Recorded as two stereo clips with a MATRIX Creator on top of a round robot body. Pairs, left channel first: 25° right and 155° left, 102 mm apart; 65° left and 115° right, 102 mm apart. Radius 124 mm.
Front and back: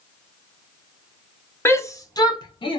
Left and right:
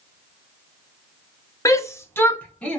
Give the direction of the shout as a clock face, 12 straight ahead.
11 o'clock.